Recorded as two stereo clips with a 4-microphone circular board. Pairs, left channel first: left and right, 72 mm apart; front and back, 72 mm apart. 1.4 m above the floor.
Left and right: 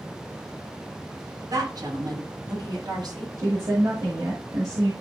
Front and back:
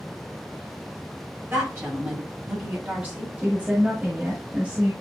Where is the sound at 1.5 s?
120° right, 4.5 m; by 3.3 s 115° right, 5.5 m.